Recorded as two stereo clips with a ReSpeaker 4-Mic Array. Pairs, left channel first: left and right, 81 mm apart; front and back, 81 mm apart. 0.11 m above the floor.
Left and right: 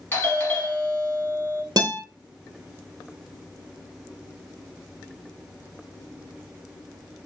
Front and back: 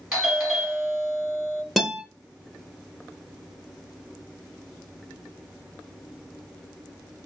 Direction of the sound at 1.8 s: 90° right.